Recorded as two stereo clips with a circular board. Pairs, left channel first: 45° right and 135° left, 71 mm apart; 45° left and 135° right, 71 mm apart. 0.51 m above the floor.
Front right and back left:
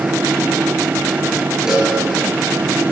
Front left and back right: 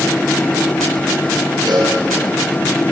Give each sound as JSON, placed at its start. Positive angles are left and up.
{"t": 1.7, "sound": "a cowbell", "azimuth_deg": -145, "distance_m": 7.0}